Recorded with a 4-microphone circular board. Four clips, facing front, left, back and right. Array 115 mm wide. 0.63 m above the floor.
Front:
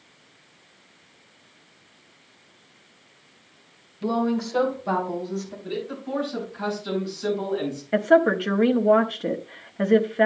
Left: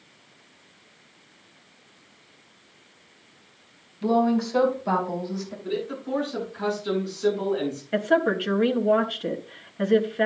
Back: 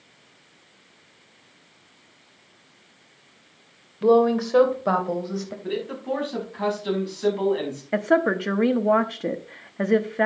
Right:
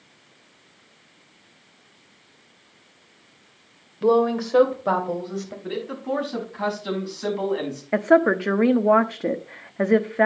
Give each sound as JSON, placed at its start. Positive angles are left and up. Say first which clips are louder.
{"t": 4.0, "sound": "a woman speaking", "louder": "right 3 dB, back 7 dB", "azimuth_deg": -130, "distance_m": 2.5}
{"t": 5.6, "sound": "a man speaking", "louder": "even, back 5 dB", "azimuth_deg": -125, "distance_m": 6.0}
{"t": 7.9, "sound": "a woman speaking", "louder": "right 5 dB, front 3 dB", "azimuth_deg": -100, "distance_m": 0.9}